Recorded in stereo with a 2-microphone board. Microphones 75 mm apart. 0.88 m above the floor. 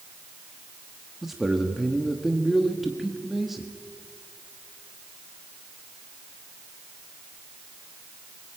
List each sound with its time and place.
1.2 s a man speaking: 5° right (ahead or behind), 1.5 m